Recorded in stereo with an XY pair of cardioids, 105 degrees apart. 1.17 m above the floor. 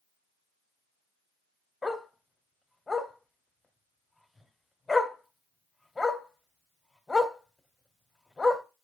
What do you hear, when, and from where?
1.8 s a dog barking: 25° left, 1.8 m